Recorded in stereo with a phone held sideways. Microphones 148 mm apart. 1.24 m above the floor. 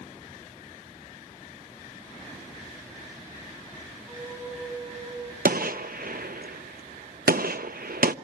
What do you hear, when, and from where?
4.1 s a flute: 10° right (ahead or behind), 7.5 m
5.5 s a gunshot: 80° right, 0.7 m